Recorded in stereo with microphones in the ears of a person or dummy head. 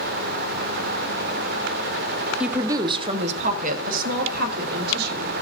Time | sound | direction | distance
2.4 | a woman speaking | centre (ahead or behind) | 0.5 m